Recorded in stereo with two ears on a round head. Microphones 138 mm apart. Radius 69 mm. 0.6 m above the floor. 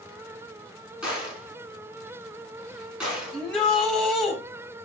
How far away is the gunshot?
About 4.5 m.